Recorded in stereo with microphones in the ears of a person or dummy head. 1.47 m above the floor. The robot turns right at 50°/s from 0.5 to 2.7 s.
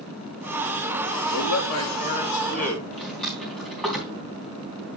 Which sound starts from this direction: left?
A man speaking, at 1.3 s.